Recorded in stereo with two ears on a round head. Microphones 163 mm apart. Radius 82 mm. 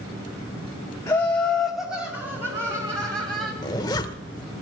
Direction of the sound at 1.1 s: 15° left (ahead or behind).